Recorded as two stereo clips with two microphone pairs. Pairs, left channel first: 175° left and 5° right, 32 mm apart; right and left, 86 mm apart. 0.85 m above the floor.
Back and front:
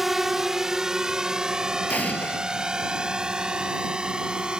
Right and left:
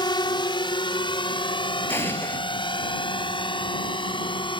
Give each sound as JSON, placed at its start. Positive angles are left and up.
{"t": 0.0, "sound": "a drone", "azimuth_deg": -85}
{"t": 1.9, "sound": "an explosion", "azimuth_deg": -150}